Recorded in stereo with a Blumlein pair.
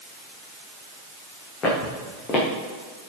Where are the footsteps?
25° left, 4.5 m.